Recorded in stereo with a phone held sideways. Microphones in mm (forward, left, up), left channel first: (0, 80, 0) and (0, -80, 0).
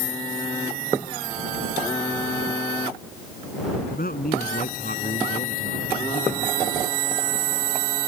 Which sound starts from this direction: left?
A man speaking, at 3.9 s.